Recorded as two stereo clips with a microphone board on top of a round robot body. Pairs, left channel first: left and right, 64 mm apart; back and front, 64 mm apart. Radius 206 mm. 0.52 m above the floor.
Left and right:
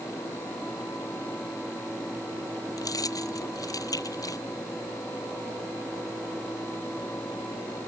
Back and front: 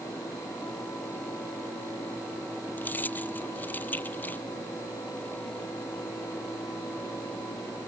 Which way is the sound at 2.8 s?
120° left.